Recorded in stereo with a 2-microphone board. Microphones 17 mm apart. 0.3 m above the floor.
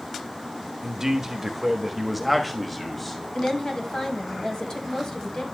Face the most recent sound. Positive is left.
turn(degrees=50)  # may be behind; listen again after turning